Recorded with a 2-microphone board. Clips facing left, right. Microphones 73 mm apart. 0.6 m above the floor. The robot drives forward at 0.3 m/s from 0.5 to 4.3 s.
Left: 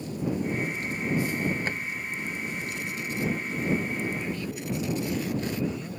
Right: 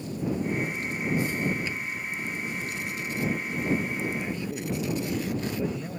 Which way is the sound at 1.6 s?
50° left (ahead or behind).